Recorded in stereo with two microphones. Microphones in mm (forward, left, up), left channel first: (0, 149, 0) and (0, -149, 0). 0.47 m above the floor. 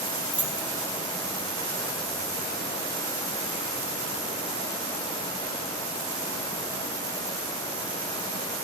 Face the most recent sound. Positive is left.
turn(degrees=-65)  # may be behind; listen again after turning